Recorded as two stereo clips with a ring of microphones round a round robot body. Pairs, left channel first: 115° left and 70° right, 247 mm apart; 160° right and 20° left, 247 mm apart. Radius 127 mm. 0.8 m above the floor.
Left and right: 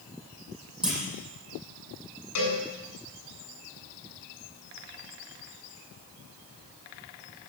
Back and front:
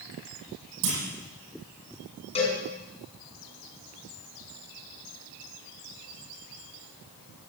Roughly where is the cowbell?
Behind left.